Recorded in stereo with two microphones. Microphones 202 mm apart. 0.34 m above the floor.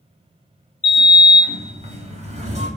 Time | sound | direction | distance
0.8 | a sliding door | 35° right (ahead or behind) | 0.6 m